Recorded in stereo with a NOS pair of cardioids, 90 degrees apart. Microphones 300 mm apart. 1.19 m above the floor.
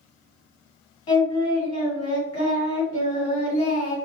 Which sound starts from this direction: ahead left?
Singing, at 1.1 s.